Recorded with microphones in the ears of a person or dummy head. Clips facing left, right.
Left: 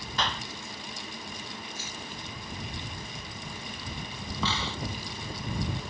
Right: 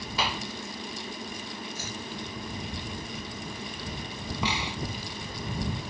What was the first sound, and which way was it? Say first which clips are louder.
A clap: right 1 dB; 5° right (ahead or behind).